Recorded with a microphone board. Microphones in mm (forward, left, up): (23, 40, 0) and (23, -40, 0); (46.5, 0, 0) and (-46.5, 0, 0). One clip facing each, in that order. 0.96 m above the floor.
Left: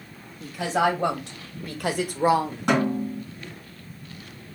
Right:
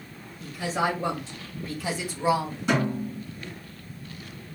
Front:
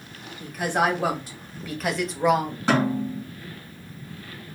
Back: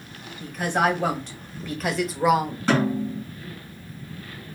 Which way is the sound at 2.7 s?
70° left.